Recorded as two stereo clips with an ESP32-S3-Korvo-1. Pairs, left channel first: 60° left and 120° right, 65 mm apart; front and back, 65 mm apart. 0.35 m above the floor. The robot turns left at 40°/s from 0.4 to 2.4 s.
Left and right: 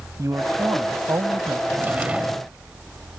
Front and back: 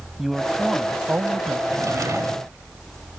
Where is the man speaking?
90° right; by 1.6 s 140° right.